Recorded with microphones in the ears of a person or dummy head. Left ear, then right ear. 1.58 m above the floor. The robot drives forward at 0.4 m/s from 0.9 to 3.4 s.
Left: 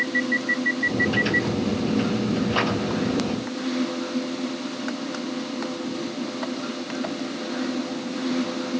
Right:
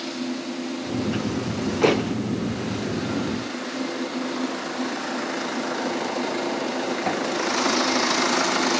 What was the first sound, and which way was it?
Only background noise.